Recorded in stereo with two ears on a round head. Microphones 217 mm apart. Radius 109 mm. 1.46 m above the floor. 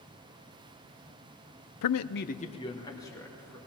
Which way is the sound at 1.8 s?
80° left.